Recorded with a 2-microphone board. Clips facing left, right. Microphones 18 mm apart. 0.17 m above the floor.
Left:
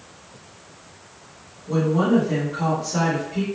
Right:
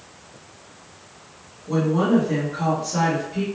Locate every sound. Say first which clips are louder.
1.7 s a woman speaking: even; 20° right (ahead or behind), 1.3 m; by 3.4 s 10° left (ahead or behind), 1.5 m